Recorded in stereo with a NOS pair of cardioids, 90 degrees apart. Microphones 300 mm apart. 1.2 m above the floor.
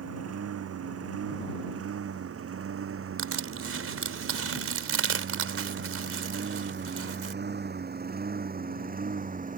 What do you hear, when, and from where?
0.0 s a lawn mower: 60° right; by 9.6 s 30° right
3.2 s crushing: 50° right